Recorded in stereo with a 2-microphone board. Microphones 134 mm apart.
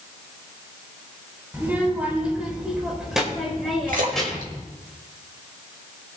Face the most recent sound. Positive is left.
turn(degrees=-85)